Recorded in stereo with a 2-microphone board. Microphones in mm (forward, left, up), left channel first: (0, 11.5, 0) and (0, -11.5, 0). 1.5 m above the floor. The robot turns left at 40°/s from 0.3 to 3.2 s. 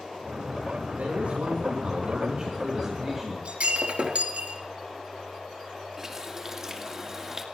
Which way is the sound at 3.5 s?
65° right (ahead or behind).